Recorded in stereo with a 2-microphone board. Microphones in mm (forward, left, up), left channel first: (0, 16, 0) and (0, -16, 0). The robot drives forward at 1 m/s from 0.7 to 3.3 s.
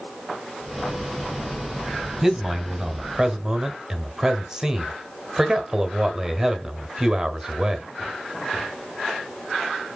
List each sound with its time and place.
2.2 s a man speaking: 10° right (ahead or behind), 2.5 m; by 7.9 s 15° right (ahead or behind), 1.6 m